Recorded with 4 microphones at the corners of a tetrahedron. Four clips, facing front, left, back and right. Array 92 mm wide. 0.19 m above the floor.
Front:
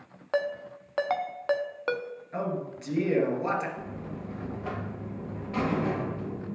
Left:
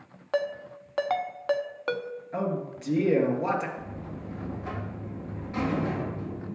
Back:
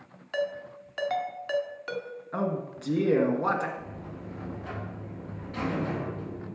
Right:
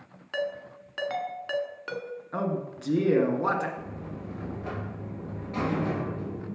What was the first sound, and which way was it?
A ringtone, 35° left.